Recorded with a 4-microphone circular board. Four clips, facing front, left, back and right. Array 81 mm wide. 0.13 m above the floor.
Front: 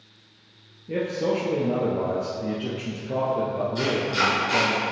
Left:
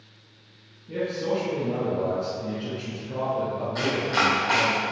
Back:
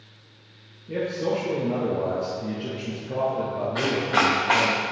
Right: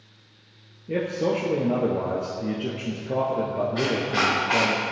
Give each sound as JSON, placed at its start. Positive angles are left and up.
{"t": 0.9, "sound": "a man speaking", "azimuth_deg": -75, "distance_m": 2.0}
{"t": 3.8, "sound": "chopping", "azimuth_deg": 170, "distance_m": 3.0}